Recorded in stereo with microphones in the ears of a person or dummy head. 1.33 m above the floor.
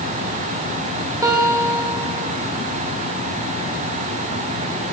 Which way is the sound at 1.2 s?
15° right (ahead or behind).